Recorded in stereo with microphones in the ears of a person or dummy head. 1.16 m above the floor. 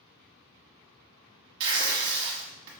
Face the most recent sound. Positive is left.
turn(degrees=-55)  # may be behind; listen again after turning